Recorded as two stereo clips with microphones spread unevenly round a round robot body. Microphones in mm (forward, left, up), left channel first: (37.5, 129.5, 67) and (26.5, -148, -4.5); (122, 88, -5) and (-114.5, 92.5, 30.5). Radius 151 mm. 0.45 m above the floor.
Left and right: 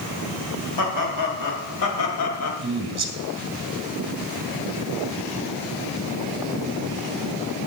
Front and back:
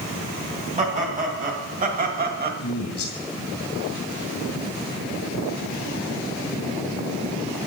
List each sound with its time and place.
0.8 s laughter: 115° left, 3 m; by 2.5 s 130° left, 2 m
2.6 s a man speaking: 30° right, 2.5 m